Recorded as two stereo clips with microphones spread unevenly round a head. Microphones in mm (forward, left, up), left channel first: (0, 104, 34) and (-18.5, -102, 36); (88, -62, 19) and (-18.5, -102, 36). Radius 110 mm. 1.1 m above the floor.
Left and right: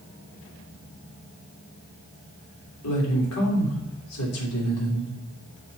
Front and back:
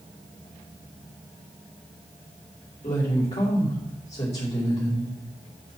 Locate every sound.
2.8 s a woman speaking: 80° left, 3 m